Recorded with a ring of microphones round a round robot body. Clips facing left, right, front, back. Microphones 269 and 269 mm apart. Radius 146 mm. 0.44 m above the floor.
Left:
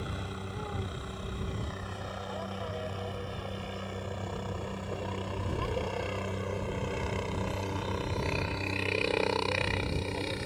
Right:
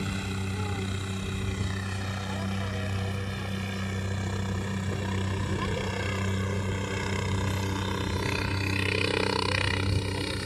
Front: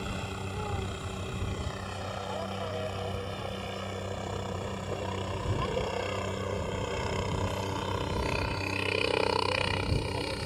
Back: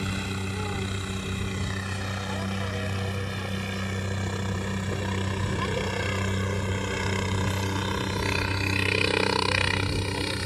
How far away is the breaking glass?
I don't hear breaking glass.